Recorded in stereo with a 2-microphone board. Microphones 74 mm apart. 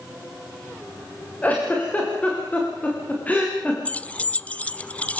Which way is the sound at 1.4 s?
20° left (ahead or behind).